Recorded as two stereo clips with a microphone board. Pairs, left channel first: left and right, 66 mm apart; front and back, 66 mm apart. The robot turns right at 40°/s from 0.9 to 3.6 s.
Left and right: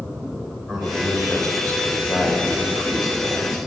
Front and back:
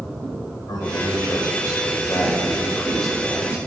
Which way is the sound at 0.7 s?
Straight ahead.